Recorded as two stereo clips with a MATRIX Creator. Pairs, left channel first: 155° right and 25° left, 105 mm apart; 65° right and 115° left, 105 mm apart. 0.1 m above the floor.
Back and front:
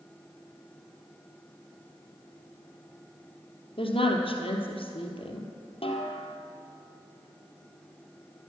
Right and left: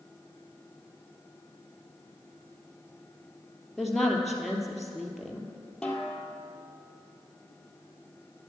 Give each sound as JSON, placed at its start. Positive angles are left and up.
{"t": 3.8, "sound": "a woman speaking", "azimuth_deg": -155, "distance_m": 2.0}
{"t": 5.8, "sound": "a snare drum", "azimuth_deg": -150, "distance_m": 2.0}